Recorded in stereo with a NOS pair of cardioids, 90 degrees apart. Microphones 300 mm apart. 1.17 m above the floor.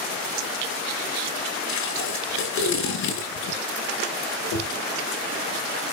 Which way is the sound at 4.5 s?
70° left.